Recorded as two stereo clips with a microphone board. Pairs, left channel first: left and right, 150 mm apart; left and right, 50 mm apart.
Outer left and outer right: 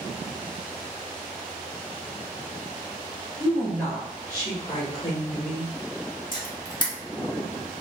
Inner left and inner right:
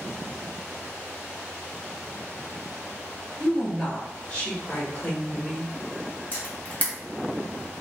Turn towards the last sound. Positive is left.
turn(degrees=30)  # may be behind; listen again after turning